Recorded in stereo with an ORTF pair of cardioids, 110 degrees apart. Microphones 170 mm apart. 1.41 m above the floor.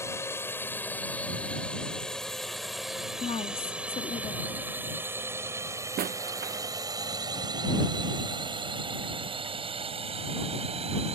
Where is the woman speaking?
30° left.